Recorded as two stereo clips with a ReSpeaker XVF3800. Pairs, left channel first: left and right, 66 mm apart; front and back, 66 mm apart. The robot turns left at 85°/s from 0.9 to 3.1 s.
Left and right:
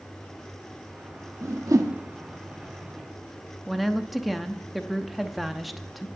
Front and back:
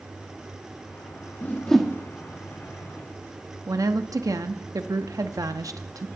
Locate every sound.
1.4 s a whoosh: 55° right, 1.2 m; by 1.9 s 100° right, 1.2 m
3.7 s a woman speaking: straight behind, 0.8 m